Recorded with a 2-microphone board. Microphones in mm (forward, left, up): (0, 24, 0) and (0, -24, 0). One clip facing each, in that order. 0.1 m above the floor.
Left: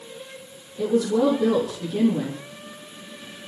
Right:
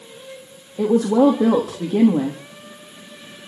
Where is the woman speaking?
45° right (ahead or behind), 4 m.